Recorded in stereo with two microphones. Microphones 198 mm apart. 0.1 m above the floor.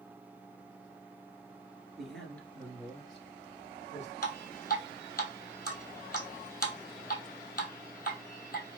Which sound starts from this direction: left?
Dripping, at 4.2 s.